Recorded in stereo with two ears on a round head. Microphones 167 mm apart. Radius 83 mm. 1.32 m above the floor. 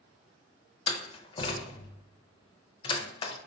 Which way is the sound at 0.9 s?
25° left (ahead or behind).